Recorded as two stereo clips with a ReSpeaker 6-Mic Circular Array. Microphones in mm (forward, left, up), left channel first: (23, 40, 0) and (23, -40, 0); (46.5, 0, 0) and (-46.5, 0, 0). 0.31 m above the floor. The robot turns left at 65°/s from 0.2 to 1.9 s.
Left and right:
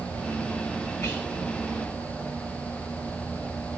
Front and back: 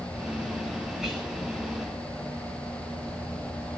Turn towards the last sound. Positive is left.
turn(degrees=40)